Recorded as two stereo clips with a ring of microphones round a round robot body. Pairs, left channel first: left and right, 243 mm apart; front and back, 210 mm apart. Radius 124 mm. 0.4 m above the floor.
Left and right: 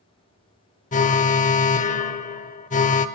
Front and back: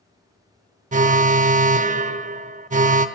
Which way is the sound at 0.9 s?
140° left.